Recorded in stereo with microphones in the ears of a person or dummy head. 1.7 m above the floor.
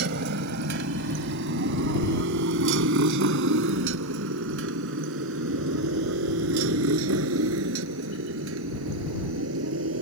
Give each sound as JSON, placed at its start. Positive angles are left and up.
{"t": 0.0, "sound": "a motorcycle", "side_deg": -60}